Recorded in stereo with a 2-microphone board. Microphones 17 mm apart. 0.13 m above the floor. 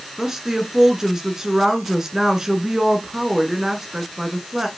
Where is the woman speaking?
35° right (ahead or behind), 1.3 m.